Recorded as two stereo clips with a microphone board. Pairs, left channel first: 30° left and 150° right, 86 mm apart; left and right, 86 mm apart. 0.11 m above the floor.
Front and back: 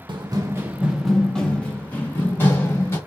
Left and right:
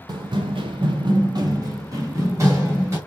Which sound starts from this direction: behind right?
Running footsteps, at 0.1 s.